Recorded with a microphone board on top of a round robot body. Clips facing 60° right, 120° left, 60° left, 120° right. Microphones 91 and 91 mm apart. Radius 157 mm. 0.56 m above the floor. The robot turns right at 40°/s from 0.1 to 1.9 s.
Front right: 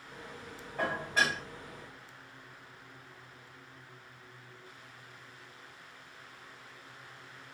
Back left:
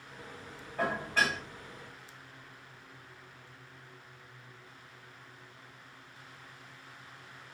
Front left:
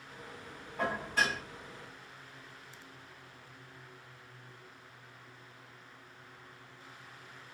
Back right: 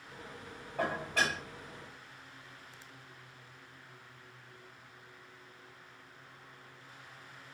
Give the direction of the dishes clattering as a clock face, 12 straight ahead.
5 o'clock.